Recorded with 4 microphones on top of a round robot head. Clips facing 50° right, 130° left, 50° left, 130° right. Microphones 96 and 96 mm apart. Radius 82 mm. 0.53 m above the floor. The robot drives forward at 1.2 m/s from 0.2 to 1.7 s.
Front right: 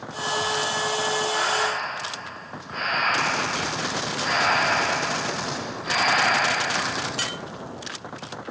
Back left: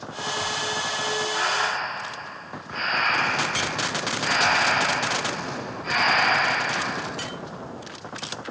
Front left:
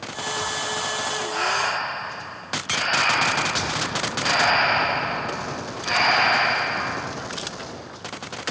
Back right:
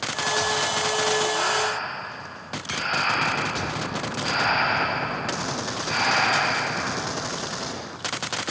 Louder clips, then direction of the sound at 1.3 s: Front right 1 dB, even; 25° left.